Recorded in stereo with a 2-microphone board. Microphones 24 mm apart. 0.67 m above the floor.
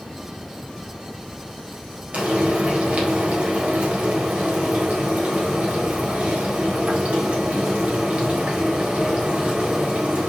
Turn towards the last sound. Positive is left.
turn(degrees=-70)  # may be behind; listen again after turning